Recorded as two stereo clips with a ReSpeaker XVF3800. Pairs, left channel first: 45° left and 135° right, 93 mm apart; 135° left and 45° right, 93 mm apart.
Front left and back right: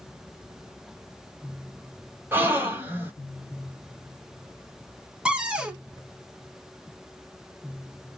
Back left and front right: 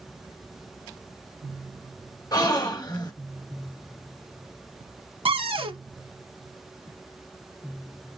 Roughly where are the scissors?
I don't hear scissors.